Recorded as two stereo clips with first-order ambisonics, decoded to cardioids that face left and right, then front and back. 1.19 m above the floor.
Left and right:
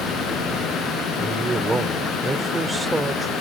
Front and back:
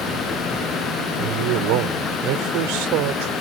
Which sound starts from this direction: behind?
A man speaking, at 1.2 s.